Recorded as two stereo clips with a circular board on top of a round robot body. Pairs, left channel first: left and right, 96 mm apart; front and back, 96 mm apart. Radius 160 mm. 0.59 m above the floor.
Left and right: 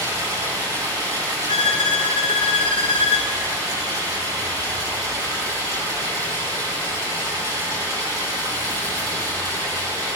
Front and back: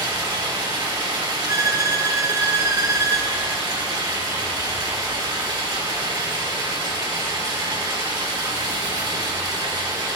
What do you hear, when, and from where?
0.0 s running water: 135° right, 4 m
1.5 s a violin: 120° left, 1.2 m